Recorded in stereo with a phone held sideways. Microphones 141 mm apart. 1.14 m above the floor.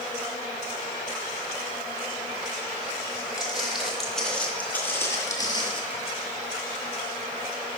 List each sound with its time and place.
3.4 s footsteps: 5° right (ahead or behind), 2.5 m; by 5.8 s 35° left (ahead or behind), 1.5 m